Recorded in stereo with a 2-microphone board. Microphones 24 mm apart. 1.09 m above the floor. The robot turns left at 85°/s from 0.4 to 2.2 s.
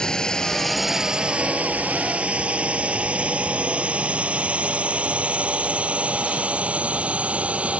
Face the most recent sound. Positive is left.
turn(degrees=-60)  # may be behind; listen again after turning